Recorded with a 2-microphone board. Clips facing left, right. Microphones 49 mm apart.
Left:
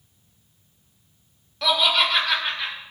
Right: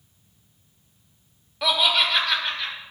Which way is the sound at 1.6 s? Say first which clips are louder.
Left 1 dB; 10° right (ahead or behind).